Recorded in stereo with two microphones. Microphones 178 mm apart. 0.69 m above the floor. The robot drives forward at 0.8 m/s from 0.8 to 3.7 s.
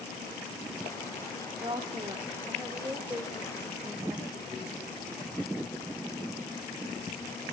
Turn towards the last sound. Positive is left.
turn(degrees=-15)  # may be behind; listen again after turning